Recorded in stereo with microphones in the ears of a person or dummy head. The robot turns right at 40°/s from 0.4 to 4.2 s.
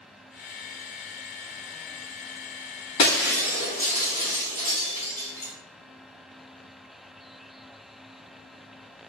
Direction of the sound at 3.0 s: 20° left (ahead or behind).